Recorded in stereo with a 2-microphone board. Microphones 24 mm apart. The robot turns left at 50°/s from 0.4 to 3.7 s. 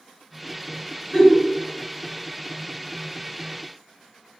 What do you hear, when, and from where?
1.1 s a giggle: 40° left (ahead or behind), 1.9 m; by 1.4 s 25° left (ahead or behind), 1.9 m